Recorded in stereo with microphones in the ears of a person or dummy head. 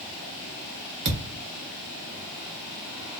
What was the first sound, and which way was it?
A thud, 55° right (ahead or behind).